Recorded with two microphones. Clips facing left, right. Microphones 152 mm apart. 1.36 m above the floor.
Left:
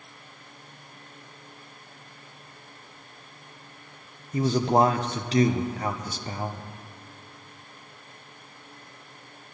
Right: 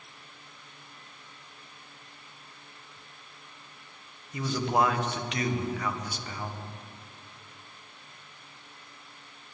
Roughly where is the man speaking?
Left.